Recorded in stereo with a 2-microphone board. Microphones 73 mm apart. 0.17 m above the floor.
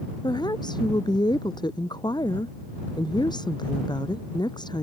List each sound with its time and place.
0.2 s a woman speaking: 80° left